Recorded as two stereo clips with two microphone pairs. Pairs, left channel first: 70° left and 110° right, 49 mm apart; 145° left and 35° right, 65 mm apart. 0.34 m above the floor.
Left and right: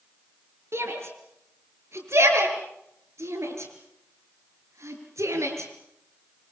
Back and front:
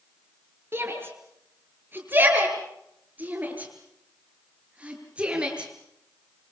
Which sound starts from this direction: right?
A shout, at 0.7 s.